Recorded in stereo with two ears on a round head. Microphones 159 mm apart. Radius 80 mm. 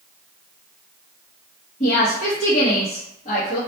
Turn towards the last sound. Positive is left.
turn(degrees=35)  # may be behind; listen again after turning